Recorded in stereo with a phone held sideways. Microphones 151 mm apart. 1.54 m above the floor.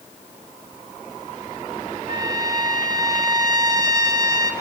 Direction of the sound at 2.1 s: 25° right (ahead or behind).